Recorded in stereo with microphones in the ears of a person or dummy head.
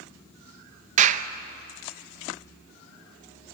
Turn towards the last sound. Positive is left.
turn(degrees=-40)  # may be behind; listen again after turning